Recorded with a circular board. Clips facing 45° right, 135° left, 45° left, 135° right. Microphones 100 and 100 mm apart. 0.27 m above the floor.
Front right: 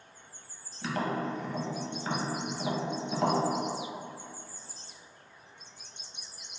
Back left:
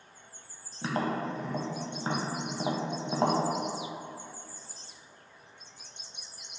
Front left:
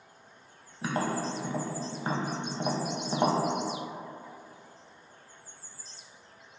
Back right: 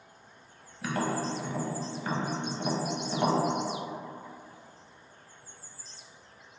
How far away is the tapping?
About 0.5 m.